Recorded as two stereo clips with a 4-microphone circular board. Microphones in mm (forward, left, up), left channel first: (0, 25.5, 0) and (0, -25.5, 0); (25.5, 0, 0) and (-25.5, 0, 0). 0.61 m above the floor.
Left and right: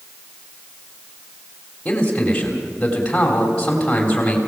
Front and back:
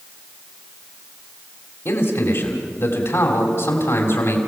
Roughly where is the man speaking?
Ahead.